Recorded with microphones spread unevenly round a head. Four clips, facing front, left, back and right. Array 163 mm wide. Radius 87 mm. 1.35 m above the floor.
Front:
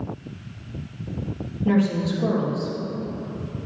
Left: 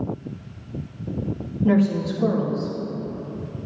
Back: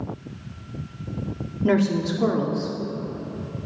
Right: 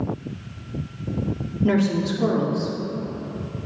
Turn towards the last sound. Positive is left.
turn(degrees=-140)